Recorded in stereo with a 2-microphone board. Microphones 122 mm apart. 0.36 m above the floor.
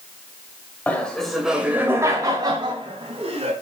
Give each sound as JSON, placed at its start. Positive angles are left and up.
{"t": 0.9, "sound": "laughter", "side_deg": 15, "distance_m": 1.9}